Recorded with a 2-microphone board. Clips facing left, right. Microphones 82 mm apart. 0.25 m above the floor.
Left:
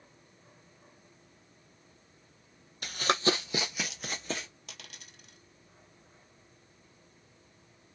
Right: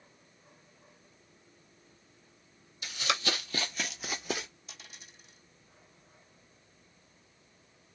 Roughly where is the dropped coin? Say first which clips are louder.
Left 2 dB; left.